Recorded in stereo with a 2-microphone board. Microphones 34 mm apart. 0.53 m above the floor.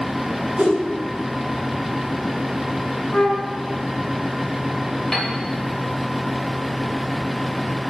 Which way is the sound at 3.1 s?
50° left (ahead or behind).